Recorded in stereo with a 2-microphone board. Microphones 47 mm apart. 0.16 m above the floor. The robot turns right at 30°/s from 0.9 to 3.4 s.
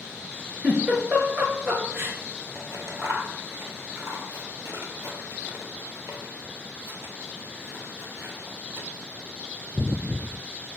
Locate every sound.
0.6 s a giggle: 30° right (ahead or behind), 2 m; by 2.2 s 55° right (ahead or behind), 2 m
2.5 s scissors: 75° right (ahead or behind), 1.1 m; by 8.9 s 65° right (ahead or behind), 1.1 m